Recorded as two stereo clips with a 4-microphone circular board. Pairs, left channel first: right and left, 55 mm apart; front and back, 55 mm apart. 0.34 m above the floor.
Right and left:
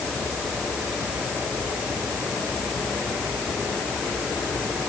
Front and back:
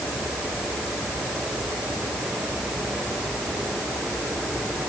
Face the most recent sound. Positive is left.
No sound to turn to.